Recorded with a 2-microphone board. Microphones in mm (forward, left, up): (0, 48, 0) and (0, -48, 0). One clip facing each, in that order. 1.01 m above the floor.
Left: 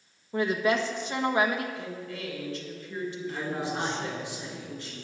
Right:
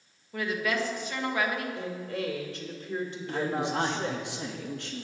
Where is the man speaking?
70° right (ahead or behind), 1.9 m.